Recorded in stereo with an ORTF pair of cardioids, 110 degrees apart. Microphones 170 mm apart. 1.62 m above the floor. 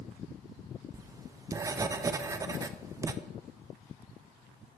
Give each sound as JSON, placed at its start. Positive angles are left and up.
{"t": 0.9, "sound": "writing", "azimuth_deg": -20, "distance_m": 0.8}